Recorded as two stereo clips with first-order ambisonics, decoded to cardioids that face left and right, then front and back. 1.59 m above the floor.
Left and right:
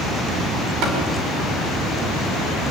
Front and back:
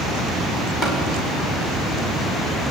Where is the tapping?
60° right, 6.5 m.